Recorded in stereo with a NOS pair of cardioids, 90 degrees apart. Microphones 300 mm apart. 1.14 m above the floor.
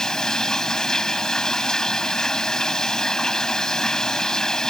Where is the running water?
Straight ahead.